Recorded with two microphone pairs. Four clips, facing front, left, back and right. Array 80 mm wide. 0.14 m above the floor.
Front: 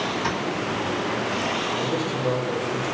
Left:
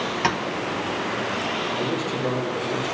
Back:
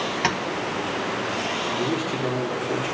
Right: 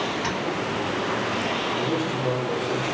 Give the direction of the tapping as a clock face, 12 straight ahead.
7 o'clock.